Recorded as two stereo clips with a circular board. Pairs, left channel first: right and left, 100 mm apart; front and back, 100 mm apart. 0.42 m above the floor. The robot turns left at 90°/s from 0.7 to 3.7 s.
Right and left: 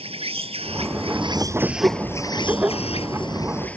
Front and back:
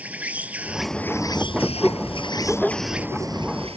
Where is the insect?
105° left; by 3.8 s 165° right.